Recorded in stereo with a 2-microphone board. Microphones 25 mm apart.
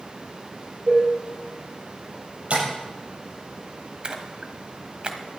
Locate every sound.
0.9 s dishes clattering: 80° right, 6 m
2.5 s tapping: 50° right (ahead or behind), 7.5 m
4.0 s a splash: 45° right (ahead or behind), 1.4 m